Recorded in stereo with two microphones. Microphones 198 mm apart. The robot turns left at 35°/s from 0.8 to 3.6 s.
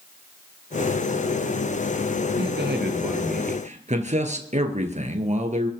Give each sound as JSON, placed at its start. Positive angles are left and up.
{"t": 2.4, "sound": "a man speaking", "azimuth_deg": -95, "distance_m": 2.5}